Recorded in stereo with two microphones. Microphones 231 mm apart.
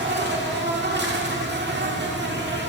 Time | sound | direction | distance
0.0 | an insect | 50° right (ahead or behind) | 0.8 m